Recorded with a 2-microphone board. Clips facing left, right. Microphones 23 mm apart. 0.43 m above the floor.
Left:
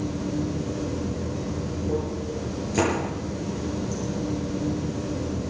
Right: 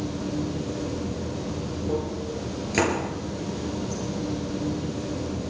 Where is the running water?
65° right (ahead or behind), 5.5 m.